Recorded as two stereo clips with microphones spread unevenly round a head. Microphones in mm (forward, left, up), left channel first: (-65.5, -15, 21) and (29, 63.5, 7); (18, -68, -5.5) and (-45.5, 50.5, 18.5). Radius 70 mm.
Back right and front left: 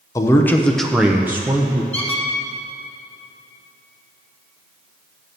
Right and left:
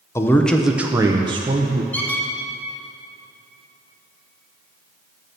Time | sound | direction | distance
0.1 | a man speaking | 85° right | 0.7 m
1.9 | a squeak | 145° right | 1.0 m